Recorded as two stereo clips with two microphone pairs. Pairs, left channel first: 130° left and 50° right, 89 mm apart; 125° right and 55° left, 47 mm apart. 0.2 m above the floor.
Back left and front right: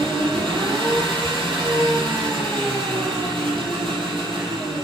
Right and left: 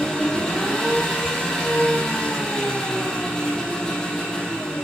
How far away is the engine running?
About 6 m.